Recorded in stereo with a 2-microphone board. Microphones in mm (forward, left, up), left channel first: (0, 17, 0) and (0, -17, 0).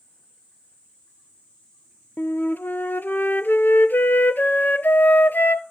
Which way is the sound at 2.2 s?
65° left (ahead or behind).